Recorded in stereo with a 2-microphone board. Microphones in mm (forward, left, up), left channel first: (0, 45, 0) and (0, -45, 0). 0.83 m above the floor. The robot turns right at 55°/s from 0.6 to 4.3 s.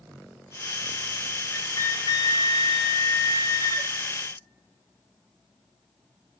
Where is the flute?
20° left, 1.0 m; by 3.9 s 150° left, 1.0 m.